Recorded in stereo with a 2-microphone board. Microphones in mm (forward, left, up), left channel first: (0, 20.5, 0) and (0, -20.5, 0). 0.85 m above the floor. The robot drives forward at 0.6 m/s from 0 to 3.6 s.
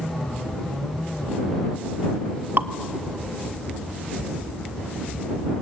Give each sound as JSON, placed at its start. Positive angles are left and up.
{"t": 2.6, "sound": "dripping", "side_deg": -60, "distance_m": 0.9}